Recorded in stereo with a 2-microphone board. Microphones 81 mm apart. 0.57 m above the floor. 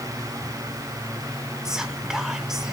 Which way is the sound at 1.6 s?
5° right (ahead or behind).